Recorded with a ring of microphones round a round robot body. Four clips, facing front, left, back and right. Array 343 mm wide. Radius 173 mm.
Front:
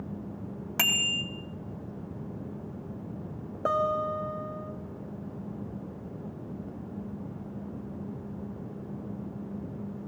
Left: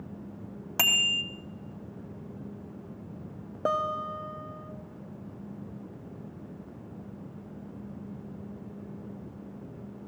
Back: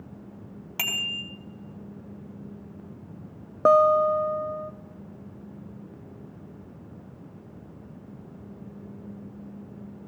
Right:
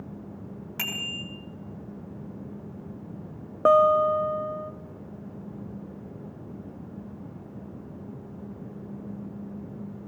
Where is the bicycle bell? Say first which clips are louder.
Left 6 dB, front 3 dB; 80° left, 3 m.